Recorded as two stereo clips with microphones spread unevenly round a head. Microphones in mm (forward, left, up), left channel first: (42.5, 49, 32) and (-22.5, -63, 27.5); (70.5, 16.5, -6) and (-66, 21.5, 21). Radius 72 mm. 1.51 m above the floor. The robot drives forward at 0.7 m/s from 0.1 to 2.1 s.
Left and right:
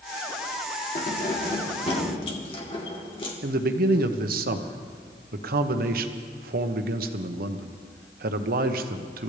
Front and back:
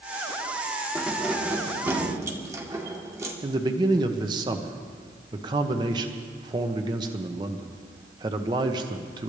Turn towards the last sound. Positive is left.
turn(degrees=-115)